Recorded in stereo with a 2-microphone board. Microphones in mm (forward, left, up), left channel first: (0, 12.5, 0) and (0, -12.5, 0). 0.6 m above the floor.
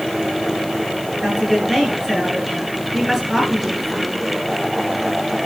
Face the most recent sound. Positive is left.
turn(degrees=-10)  # may be behind; listen again after turning